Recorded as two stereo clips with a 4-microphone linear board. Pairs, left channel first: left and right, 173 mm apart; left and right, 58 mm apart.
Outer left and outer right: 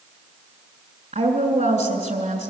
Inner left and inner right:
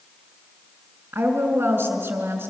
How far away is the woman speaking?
About 2.5 m.